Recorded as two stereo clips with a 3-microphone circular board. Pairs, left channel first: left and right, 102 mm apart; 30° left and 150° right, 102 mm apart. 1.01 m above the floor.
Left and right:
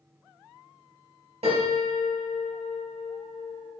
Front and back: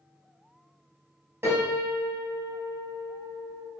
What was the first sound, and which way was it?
A piano, 85° right.